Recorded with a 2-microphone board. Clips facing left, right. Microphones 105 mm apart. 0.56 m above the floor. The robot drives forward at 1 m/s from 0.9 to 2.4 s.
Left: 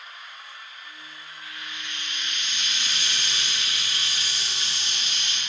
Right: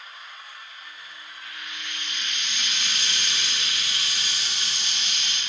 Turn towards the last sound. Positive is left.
turn(degrees=-80)